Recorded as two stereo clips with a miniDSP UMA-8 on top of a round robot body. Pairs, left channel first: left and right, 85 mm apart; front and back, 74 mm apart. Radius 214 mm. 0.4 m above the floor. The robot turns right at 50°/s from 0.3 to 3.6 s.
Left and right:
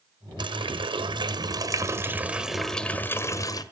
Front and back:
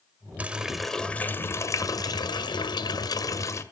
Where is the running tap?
110° right, 1.6 m; by 3.6 s 50° left, 1.6 m.